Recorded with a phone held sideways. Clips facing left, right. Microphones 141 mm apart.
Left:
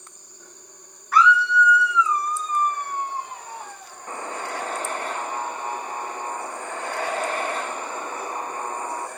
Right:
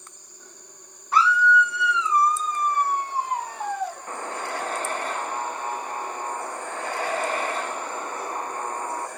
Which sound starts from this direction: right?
A scream, at 1.1 s.